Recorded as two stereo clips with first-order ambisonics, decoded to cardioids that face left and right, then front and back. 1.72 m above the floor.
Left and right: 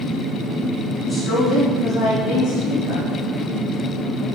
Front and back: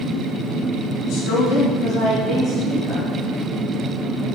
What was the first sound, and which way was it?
A woman speaking, 10° left.